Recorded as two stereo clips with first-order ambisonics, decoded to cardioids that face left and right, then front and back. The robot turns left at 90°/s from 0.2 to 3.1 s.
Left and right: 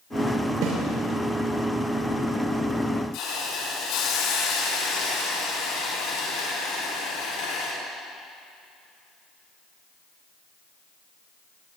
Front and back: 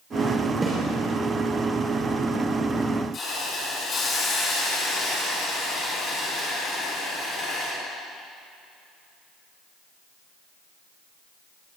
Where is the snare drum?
100° right, 5.5 m; by 0.8 s 115° right, 5.5 m.